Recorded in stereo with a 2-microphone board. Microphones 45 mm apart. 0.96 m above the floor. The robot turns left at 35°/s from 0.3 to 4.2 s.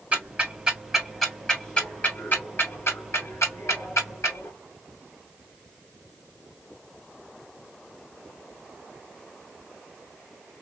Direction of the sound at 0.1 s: 30° right (ahead or behind).